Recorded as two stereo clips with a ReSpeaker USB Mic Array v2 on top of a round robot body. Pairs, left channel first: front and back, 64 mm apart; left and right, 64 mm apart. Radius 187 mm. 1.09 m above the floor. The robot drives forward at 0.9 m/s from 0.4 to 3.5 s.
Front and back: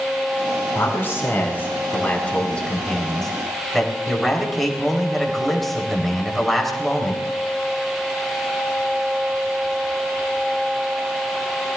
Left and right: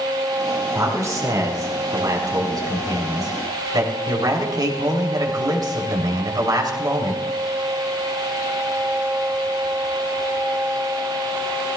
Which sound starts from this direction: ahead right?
A man speaking, at 0.8 s.